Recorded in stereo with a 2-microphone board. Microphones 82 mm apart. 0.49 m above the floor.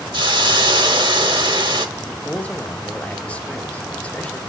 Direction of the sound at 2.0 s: 15° left (ahead or behind).